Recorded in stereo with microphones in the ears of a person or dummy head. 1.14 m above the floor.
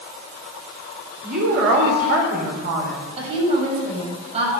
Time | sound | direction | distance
1.2 | a woman speaking | 50° right (ahead or behind) | 3.5 m
3.2 | a woman speaking | 35° right (ahead or behind) | 6 m